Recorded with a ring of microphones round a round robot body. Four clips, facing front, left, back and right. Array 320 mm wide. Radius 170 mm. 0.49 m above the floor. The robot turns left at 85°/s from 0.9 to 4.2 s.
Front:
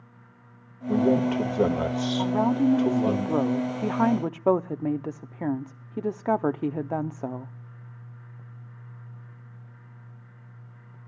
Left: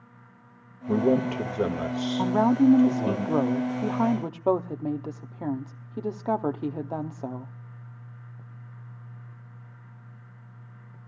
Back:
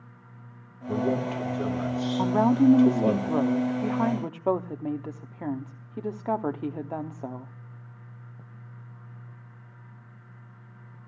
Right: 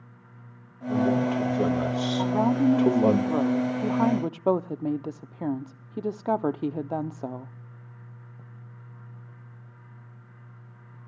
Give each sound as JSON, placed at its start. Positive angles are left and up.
{"t": 0.9, "sound": "a man speaking", "azimuth_deg": 80, "distance_m": 1.9}
{"t": 2.2, "sound": "a woman speaking", "azimuth_deg": 150, "distance_m": 0.7}